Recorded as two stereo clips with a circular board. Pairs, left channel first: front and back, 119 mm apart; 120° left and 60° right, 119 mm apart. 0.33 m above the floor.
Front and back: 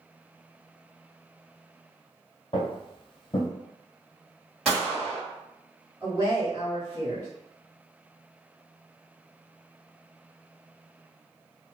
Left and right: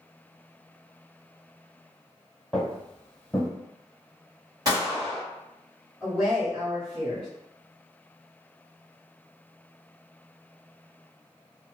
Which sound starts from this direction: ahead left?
Footsteps, at 2.5 s.